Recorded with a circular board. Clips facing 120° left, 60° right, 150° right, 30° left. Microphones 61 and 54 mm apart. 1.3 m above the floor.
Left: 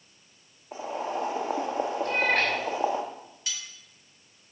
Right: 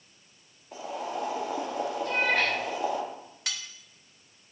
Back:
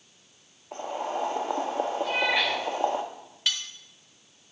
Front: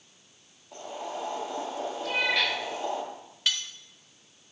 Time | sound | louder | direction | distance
0.7 | boiling | left 3 dB, back 5 dB | 175° left | 1.4 m
2.0 | a cat meowing | even, front 1 dB | 140° left | 3.5 m
3.5 | cutlery clinking | right 1 dB, even | 60° right | 1.0 m